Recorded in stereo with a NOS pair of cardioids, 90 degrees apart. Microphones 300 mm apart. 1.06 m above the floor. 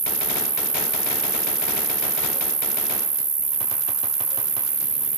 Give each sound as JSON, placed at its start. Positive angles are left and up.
{"t": 0.0, "sound": "an insect", "azimuth_deg": -35}